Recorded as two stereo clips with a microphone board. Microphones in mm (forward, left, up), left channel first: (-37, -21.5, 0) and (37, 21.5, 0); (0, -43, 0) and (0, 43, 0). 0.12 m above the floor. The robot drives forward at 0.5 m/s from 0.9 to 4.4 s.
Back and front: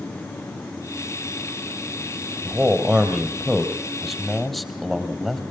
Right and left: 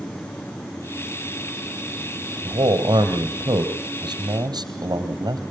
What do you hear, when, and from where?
2.5 s a man speaking: 105° left, 3 m; by 5.4 s 120° left, 3.5 m